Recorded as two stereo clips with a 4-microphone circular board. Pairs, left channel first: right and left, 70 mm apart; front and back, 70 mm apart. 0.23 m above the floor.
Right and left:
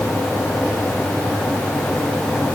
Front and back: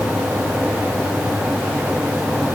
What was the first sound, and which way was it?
Only background noise.